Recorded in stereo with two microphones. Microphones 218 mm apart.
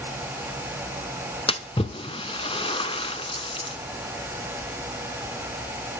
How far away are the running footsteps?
I don't hear running footsteps.